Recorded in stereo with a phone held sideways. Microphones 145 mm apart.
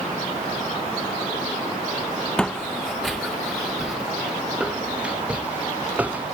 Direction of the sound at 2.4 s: 5° left (ahead or behind).